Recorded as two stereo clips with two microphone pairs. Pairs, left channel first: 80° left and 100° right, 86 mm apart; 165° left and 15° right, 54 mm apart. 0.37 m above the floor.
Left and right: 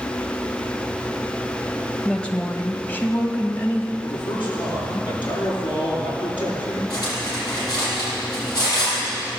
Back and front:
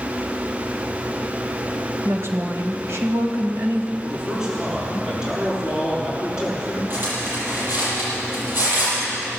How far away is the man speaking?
About 6 m.